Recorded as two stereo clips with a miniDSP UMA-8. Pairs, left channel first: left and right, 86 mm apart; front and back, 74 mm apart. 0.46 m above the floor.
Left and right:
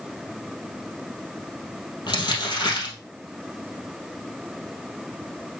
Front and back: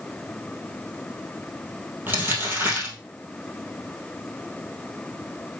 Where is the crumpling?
120° left, 2.5 m.